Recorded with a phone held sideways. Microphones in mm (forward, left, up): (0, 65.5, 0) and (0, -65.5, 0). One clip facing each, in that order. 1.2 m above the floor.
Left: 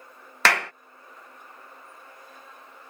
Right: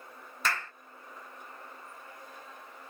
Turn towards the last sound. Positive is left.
turn(degrees=80)